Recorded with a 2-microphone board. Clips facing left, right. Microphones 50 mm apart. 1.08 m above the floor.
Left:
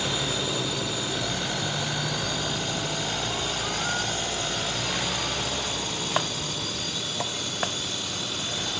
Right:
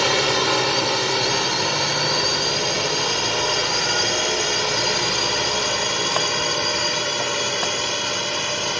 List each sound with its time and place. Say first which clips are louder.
0.0 s a drone: right 9 dB; 70° right (ahead or behind); by 8.8 s 60° right (ahead or behind)